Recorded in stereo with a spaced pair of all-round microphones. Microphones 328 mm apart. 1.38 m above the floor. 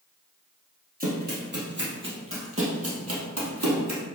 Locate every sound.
1.0 s running footsteps: 25° right (ahead or behind), 2.5 m; by 4.0 s 55° right (ahead or behind), 3 m